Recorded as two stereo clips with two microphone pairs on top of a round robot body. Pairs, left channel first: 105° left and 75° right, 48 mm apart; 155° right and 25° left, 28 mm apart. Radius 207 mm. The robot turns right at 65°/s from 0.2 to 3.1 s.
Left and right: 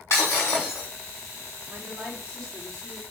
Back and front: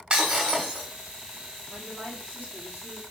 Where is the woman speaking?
50° right, 2 m; by 3.0 s 40° left, 2 m.